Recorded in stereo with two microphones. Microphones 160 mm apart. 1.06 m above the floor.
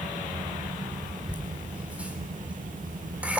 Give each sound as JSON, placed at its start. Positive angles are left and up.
{"t": 1.3, "sound": "laughter", "side_deg": -10, "distance_m": 4.0}